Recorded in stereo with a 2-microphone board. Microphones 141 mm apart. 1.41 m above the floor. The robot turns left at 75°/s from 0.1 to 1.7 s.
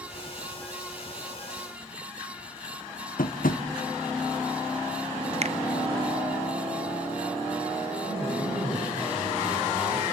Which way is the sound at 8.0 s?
70° right (ahead or behind).